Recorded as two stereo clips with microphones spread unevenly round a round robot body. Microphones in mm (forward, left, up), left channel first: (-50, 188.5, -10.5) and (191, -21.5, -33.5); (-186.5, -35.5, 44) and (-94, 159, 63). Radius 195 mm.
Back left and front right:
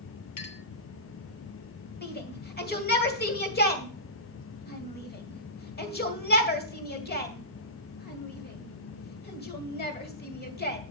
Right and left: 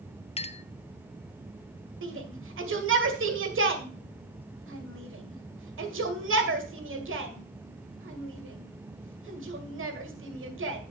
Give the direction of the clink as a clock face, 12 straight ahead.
6 o'clock.